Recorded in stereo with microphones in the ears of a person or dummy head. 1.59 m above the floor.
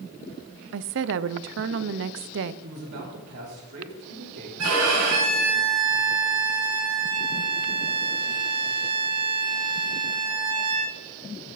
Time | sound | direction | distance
0.7 | a woman speaking | 65° right (ahead or behind) | 0.6 m
2.6 | a man speaking | 65° right (ahead or behind) | 4 m
4.6 | a violin | 70° right (ahead or behind) | 3 m